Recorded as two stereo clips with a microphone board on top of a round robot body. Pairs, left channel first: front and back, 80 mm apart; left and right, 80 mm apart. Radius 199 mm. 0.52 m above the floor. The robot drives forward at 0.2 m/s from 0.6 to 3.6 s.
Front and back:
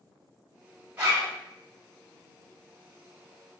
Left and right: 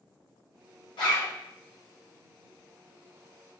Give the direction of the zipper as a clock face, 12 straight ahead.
8 o'clock.